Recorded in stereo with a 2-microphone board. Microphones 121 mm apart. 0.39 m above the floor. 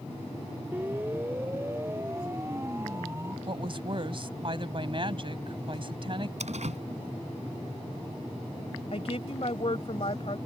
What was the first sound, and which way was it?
A siren, 15° right (ahead or behind).